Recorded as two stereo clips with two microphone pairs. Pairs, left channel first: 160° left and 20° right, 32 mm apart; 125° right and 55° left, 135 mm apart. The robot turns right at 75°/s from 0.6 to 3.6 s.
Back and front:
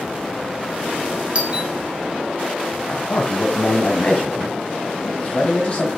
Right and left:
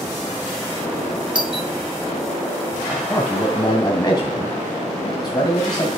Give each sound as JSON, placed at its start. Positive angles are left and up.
{"t": 1.4, "sound": "a doorbell", "azimuth_deg": 15, "distance_m": 2.0}
{"t": 2.9, "sound": "a man speaking", "azimuth_deg": 135, "distance_m": 1.8}